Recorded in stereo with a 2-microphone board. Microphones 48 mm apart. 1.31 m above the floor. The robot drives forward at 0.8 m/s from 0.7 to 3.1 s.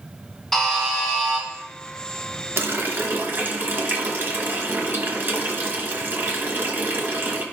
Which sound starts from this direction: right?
A running tap, at 2.6 s.